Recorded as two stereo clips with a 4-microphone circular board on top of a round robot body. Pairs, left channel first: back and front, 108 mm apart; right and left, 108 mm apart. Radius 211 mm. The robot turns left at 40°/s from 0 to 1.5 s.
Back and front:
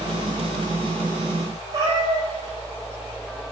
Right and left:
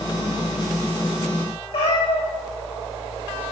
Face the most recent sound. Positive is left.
turn(degrees=-60)